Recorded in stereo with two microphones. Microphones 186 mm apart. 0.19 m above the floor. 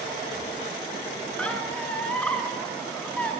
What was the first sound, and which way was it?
A squeak, 5° left (ahead or behind).